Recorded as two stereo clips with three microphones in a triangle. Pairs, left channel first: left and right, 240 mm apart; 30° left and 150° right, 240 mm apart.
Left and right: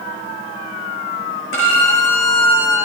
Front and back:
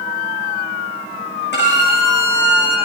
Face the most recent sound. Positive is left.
turn(degrees=70)